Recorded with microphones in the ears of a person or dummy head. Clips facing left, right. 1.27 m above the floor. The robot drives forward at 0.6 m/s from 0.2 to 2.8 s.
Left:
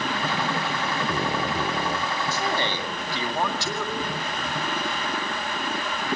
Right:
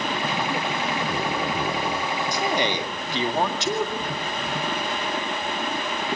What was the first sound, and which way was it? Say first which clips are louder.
A man speaking: right 4 dB; 15° right (ahead or behind).